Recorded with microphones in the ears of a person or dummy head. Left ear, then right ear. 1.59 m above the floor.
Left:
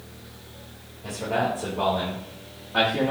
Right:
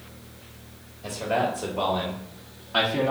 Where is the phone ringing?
No phone ringing in this recording.